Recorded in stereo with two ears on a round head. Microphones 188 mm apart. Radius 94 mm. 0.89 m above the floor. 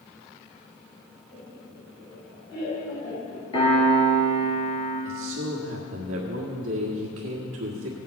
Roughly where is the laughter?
Left.